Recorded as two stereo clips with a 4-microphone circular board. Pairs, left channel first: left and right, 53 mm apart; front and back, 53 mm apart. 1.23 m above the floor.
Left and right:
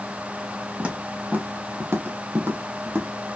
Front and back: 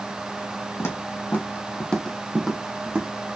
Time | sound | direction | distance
0.8 | footsteps | 25° right | 2.5 m